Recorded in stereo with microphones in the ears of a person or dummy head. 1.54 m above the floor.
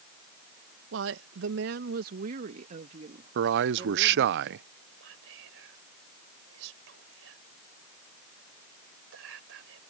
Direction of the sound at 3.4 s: 70° right (ahead or behind).